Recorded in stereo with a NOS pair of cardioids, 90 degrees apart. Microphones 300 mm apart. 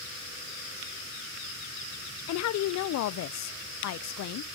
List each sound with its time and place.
2.3 s a woman speaking: 65° left, 0.5 m